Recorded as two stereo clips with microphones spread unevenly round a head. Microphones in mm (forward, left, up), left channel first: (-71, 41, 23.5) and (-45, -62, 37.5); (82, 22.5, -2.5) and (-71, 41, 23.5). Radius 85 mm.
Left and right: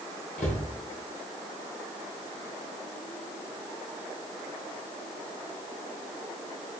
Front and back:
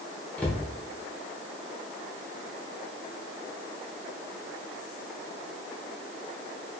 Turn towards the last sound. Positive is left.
turn(degrees=80)